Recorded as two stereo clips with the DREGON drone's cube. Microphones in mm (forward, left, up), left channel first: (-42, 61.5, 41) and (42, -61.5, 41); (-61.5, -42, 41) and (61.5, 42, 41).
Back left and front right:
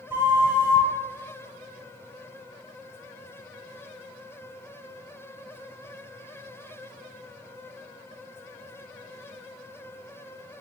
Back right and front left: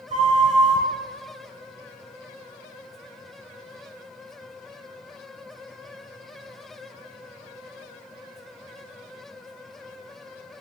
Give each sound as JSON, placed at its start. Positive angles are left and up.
{"t": 0.1, "sound": "a flute", "azimuth_deg": 15, "distance_m": 0.7}